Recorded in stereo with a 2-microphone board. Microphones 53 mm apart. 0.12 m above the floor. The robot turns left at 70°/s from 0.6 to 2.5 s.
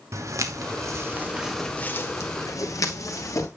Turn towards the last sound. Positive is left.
turn(degrees=80)